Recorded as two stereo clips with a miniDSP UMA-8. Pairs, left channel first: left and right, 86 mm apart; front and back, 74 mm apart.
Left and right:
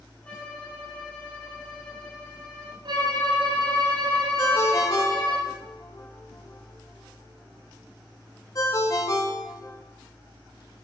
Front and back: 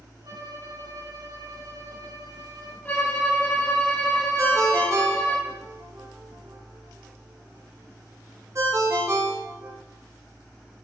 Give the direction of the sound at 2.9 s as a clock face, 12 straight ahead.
2 o'clock.